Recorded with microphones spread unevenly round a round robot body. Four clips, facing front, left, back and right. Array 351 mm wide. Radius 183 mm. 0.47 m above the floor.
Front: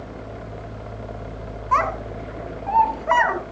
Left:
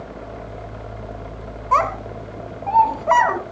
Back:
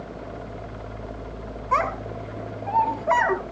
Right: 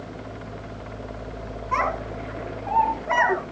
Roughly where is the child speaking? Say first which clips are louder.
Left 6 dB, front 3 dB; ahead left.